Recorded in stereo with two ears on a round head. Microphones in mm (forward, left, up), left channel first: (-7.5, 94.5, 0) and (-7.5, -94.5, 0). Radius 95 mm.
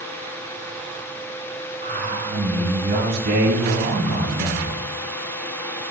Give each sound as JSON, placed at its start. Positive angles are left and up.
{"t": 1.8, "sound": "a man speaking", "side_deg": -40, "distance_m": 3.5}